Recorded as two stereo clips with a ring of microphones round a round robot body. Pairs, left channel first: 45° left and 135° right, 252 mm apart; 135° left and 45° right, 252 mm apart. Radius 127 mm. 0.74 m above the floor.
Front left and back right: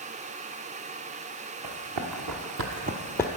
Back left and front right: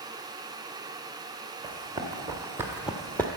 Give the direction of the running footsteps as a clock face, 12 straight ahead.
4 o'clock.